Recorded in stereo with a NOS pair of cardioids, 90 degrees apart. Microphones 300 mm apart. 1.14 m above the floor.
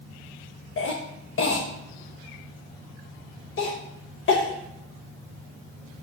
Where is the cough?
45° left, 1.1 m.